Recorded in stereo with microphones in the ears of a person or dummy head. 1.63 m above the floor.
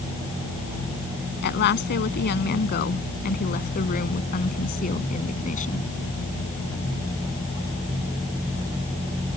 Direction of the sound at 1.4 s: 60° left (ahead or behind).